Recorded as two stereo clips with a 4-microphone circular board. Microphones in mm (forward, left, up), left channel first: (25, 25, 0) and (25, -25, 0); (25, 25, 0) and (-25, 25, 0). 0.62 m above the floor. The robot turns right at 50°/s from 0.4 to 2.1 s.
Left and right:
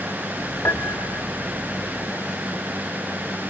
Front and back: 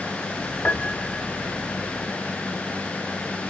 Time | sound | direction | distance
0.7 | a piano | 65° left | 0.8 m